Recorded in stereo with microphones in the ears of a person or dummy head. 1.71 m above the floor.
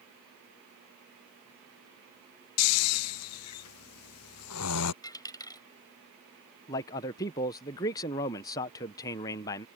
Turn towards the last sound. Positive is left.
turn(degrees=15)  # may be behind; listen again after turning